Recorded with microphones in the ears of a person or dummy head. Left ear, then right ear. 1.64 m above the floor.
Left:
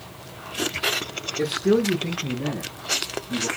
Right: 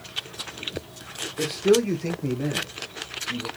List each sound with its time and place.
1.4 s a man speaking: 5° right (ahead or behind), 0.8 m; by 3.5 s 80° right, 2.5 m